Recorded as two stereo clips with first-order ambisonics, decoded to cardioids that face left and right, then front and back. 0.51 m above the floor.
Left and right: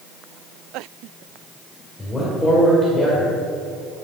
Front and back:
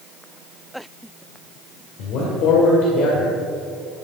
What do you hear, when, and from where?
2.0 s a man speaking: straight ahead, 2 m